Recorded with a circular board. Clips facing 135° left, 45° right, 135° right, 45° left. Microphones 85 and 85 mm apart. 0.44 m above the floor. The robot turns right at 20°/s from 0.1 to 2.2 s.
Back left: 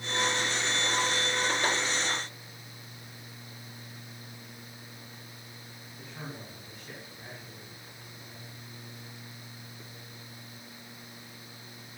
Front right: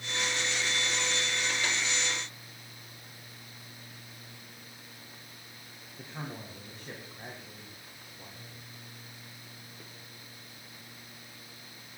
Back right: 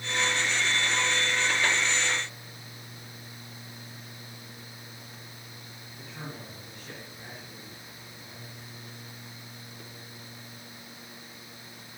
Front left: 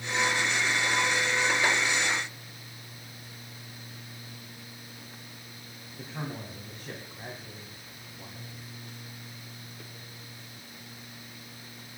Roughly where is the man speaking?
Ahead.